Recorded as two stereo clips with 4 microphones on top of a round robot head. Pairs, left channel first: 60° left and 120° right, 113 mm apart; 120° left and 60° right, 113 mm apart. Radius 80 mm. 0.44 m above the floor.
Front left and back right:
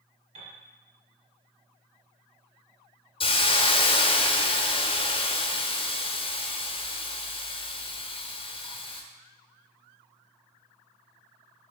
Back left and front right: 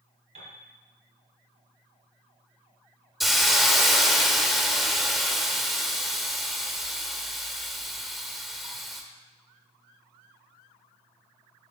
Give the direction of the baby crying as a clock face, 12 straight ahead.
No baby crying in this recording.